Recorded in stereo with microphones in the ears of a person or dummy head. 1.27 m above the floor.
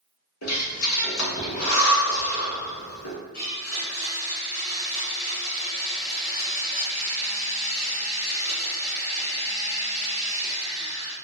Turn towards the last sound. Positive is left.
turn(degrees=55)  # may be behind; listen again after turning